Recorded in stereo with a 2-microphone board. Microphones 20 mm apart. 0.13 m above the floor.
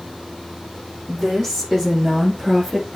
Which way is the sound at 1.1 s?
15° right (ahead or behind).